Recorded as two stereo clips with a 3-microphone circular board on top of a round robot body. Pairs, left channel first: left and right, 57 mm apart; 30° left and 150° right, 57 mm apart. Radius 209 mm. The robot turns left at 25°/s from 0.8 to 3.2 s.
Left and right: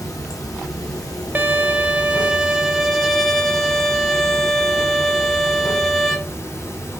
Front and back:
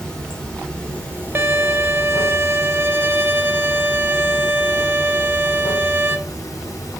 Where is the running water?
105° left, 1.8 m; by 7.0 s 45° left, 1.8 m.